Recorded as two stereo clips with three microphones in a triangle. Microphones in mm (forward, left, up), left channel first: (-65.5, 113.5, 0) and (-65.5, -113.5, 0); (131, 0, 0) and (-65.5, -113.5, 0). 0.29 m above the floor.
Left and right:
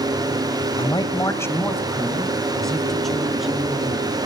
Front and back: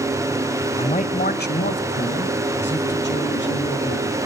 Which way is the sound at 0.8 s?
50° left.